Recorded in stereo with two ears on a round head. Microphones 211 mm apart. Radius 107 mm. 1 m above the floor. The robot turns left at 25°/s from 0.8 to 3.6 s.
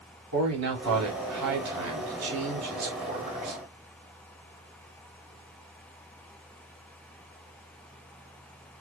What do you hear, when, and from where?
0.3 s a man speaking: 75° right, 3.5 m; by 3.6 s 145° right, 3.5 m